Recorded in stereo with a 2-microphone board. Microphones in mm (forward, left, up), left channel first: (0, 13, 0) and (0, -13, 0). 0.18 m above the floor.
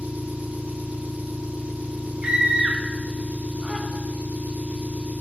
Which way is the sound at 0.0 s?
60° right (ahead or behind).